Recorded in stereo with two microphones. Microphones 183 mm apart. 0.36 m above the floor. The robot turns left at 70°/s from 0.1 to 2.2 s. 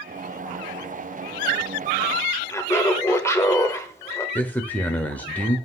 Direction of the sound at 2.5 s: 15° left (ahead or behind).